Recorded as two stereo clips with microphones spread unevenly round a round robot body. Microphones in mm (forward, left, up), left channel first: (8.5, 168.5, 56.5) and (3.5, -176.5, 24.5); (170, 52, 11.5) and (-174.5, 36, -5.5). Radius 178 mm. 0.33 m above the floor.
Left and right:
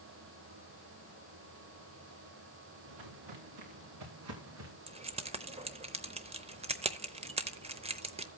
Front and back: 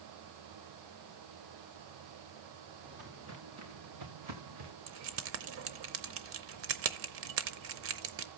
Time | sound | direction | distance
2.9 | footsteps | 110° right | 3 m
4.9 | keys jangling | 150° right | 0.7 m